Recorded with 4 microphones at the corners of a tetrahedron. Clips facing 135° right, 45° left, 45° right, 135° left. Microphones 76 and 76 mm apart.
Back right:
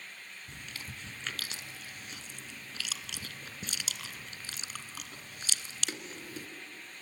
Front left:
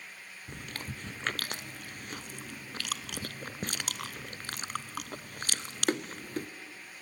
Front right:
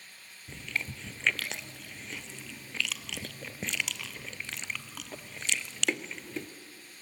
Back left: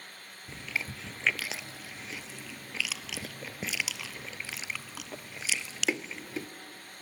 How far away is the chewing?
About 0.6 m.